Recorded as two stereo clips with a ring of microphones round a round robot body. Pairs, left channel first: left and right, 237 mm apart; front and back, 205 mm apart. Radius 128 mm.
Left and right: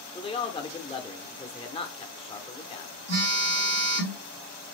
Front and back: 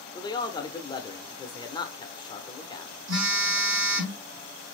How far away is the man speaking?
About 0.9 m.